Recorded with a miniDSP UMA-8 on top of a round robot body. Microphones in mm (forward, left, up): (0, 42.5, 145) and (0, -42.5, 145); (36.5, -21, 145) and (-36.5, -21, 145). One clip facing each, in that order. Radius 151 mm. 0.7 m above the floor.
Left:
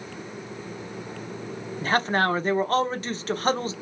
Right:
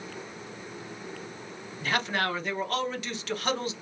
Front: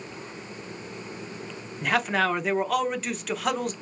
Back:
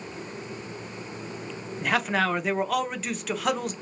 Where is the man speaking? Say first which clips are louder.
Left 6 dB, front 1 dB; 90° left, 0.8 m.